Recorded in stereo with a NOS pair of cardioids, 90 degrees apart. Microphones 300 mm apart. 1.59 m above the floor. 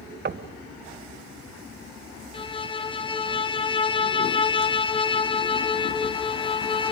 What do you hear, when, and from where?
0.2 s knocking: 35° right, 1.0 m
2.3 s a violin: 15° left, 1.3 m